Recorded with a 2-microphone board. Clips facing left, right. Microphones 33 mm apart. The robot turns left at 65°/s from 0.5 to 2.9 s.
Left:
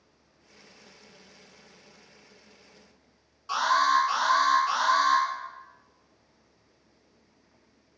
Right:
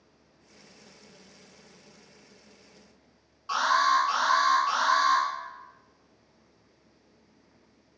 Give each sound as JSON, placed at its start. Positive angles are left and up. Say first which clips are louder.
{"t": 3.5, "sound": "an alarm", "louder": "even", "side_deg": -10, "distance_m": 1.3}